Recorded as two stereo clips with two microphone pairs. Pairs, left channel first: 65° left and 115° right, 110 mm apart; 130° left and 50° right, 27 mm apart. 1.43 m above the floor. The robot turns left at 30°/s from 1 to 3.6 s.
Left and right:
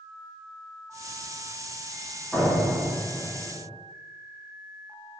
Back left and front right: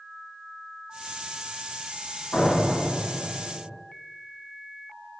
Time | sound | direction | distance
2.3 | a door slam | 150° left | 1.8 m